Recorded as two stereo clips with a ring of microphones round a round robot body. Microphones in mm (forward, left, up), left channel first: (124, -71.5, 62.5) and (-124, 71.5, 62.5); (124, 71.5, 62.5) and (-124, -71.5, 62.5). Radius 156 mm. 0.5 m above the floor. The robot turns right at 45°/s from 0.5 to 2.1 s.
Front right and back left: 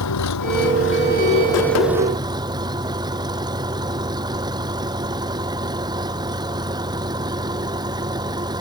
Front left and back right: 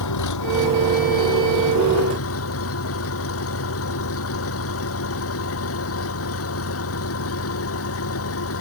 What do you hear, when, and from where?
0.0 s an engine running: straight ahead; by 8.6 s 75° left